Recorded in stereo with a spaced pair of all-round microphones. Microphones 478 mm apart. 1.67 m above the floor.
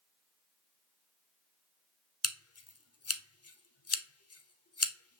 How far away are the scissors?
About 0.5 m.